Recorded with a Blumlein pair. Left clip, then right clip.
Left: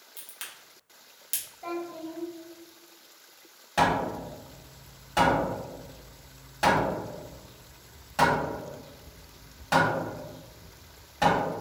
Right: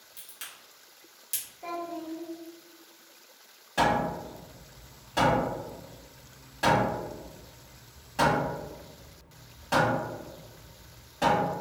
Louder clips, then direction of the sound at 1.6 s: Right 1 dB; 5° right.